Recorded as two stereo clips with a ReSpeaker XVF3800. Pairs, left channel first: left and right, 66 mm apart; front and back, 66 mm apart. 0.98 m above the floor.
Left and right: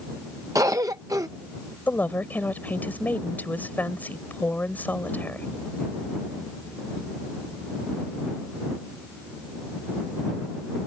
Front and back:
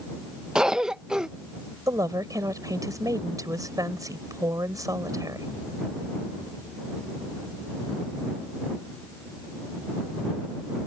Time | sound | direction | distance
0.6 | a cough | 100° right | ?
1.9 | a woman speaking | 155° left | ?